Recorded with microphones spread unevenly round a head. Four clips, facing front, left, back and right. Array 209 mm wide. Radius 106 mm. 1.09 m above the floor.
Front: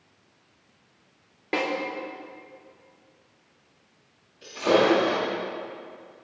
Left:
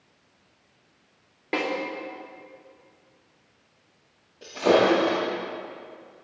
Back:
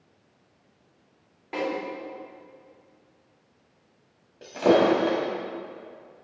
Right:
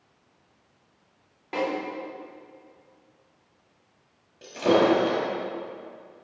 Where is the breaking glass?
175° left, 3 m.